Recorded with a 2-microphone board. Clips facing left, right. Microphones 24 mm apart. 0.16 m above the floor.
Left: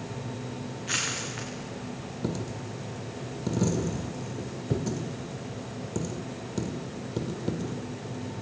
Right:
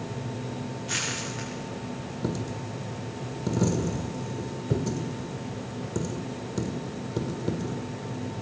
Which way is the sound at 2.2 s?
5° left (ahead or behind).